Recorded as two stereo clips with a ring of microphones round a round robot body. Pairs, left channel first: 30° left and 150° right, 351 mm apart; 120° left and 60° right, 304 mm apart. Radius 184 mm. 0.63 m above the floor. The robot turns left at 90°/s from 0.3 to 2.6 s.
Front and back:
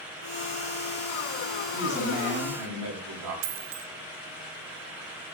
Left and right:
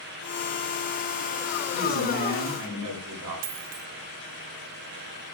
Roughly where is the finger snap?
No finger snap in this recording.